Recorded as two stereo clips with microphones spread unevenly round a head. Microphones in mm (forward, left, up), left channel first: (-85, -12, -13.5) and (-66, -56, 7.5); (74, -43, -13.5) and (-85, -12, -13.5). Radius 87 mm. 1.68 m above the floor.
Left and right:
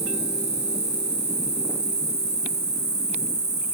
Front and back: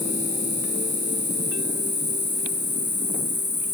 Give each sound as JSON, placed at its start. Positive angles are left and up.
{"t": 0.0, "sound": "an insect", "azimuth_deg": -85, "distance_m": 1.0}